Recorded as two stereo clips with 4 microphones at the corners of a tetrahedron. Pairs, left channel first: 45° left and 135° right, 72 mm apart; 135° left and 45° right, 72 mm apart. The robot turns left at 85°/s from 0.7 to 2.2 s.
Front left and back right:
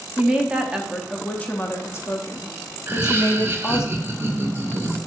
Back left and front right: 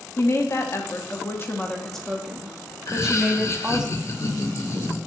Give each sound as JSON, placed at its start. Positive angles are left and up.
{"t": 0.2, "sound": "a woman speaking", "azimuth_deg": 160, "distance_m": 0.5}
{"t": 2.9, "sound": "laughter", "azimuth_deg": 175, "distance_m": 0.6}